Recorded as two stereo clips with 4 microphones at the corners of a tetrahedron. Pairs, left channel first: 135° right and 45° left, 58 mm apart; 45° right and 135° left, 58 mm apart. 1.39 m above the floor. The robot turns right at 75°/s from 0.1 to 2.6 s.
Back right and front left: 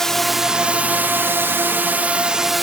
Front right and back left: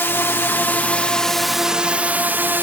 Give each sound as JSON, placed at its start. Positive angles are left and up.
{"t": 0.0, "sound": "a drone", "azimuth_deg": -55}